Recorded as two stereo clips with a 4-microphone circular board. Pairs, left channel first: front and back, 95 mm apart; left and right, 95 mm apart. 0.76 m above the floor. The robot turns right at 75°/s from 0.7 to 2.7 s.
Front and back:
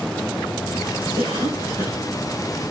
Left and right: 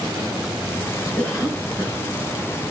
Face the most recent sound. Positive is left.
turn(degrees=-95)